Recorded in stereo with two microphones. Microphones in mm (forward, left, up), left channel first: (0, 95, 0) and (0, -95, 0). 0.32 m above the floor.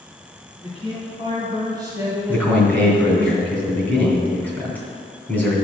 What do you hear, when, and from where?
0.6 s a man speaking: 35° right (ahead or behind), 3 m; by 3.3 s 5° left (ahead or behind), 1.8 m
2.3 s a man speaking: 10° left (ahead or behind), 3 m